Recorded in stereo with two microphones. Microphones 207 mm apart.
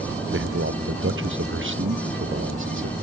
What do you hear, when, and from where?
0.3 s a man speaking: 70° right (ahead or behind)